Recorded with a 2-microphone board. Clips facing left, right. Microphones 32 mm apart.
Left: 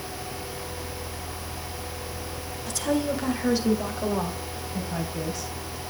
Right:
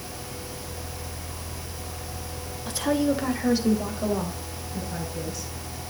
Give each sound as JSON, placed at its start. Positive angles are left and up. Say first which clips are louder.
{"t": 2.7, "sound": "a woman speaking", "louder": "right 2 dB", "side_deg": -30, "distance_m": 2.5}